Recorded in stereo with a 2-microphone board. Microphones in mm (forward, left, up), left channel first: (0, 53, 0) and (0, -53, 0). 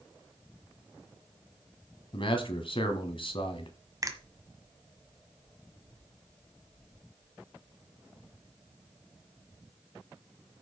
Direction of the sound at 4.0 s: 35° right (ahead or behind).